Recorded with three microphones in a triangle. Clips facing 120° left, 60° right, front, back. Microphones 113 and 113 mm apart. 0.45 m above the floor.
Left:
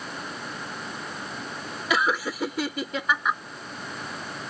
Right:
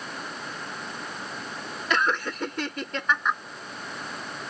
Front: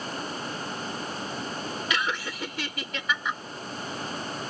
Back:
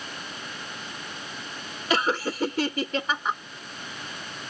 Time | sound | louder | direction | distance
1.9 | laughter | left 1 dB, back 8 dB | 160° right | ?